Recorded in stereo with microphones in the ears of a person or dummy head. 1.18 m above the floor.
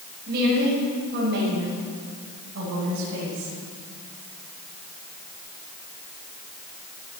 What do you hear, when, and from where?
0.3 s a woman speaking: 50° right (ahead or behind), 6 m; by 3.5 s 65° right (ahead or behind), 7 m